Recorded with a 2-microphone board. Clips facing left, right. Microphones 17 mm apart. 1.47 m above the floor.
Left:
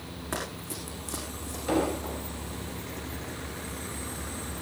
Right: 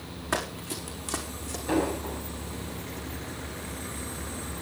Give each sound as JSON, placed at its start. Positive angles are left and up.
{"t": 0.3, "sound": "running footsteps", "side_deg": -15, "distance_m": 5.5}
{"t": 1.7, "sound": "an explosion", "side_deg": 30, "distance_m": 7.0}